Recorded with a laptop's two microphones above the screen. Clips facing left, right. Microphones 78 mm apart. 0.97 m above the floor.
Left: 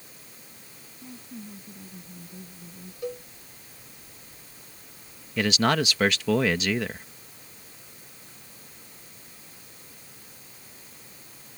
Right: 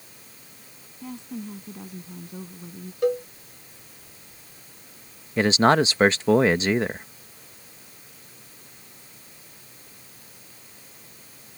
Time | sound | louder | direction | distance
1.0 | a woman speaking | right 7 dB | 85° right | ?
3.0 | a cowbell | right 12 dB | 65° right (ahead or behind) | ?
5.4 | a man speaking | right 5 dB | 30° right (ahead or behind) | ?